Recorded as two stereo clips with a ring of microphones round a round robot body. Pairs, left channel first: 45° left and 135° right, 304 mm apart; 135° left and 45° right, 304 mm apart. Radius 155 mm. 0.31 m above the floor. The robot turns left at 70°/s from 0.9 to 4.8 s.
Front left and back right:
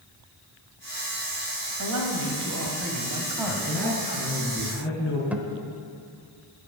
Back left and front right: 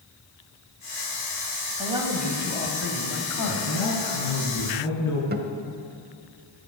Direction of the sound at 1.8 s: 110° right.